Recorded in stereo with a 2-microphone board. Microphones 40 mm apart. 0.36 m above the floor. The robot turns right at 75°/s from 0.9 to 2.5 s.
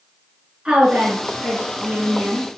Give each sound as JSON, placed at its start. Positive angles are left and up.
{"t": 0.7, "sound": "a woman speaking", "azimuth_deg": -160, "distance_m": 4.0}